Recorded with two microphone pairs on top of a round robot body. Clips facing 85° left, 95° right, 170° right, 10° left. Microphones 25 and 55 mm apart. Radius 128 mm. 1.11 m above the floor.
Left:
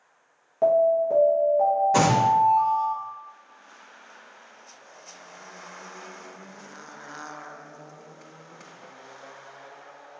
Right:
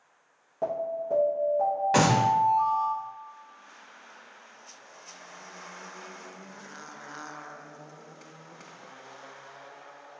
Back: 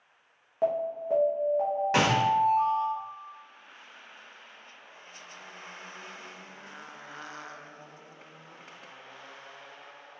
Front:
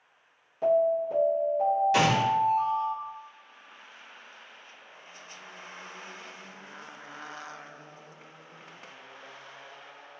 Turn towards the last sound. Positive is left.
turn(degrees=-120)